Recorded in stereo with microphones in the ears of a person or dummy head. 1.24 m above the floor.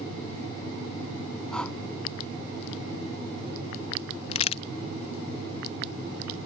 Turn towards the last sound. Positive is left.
turn(degrees=35)  # may be behind; listen again after turning